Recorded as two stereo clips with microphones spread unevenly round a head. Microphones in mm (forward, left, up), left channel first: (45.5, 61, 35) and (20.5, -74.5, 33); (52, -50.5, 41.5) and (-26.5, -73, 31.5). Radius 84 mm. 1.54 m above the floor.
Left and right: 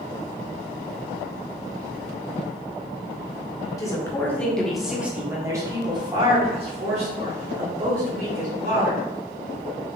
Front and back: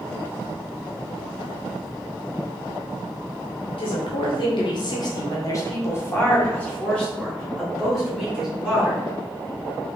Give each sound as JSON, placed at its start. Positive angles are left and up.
{"t": 3.8, "sound": "a woman speaking", "azimuth_deg": 15, "distance_m": 1.4}